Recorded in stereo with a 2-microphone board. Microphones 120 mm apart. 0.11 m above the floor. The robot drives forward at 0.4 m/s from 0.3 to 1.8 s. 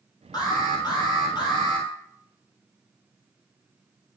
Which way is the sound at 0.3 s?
30° left (ahead or behind).